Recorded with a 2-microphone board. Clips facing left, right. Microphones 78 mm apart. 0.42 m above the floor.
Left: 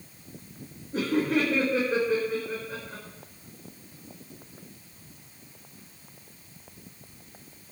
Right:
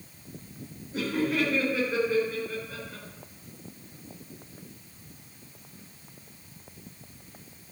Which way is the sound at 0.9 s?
55° left (ahead or behind).